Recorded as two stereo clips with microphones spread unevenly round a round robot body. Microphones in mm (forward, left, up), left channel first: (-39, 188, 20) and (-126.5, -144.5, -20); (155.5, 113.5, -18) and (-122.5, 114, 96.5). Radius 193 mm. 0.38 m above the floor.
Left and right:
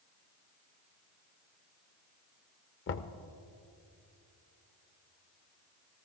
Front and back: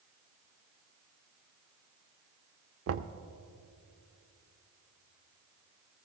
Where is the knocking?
125° left, 0.7 m.